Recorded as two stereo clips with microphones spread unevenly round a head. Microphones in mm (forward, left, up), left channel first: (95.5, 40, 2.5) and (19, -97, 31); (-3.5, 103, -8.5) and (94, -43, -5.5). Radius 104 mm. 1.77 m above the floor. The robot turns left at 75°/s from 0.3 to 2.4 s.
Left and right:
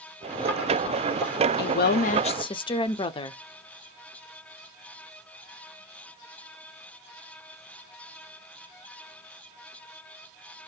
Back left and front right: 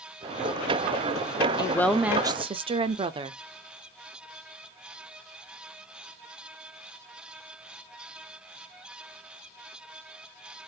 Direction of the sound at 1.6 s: 60° left.